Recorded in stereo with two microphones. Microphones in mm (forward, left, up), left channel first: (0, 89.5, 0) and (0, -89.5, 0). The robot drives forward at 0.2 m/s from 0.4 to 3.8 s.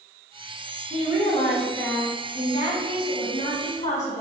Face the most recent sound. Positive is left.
turn(degrees=45)  # may be behind; listen again after turning